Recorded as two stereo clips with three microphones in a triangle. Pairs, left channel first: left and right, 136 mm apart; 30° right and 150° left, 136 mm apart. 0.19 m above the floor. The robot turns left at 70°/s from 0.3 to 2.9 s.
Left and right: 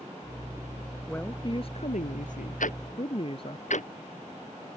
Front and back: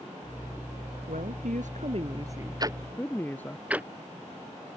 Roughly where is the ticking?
Left.